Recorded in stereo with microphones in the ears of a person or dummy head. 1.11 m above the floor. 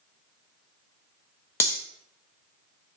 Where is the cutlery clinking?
15° left (ahead or behind), 0.5 m.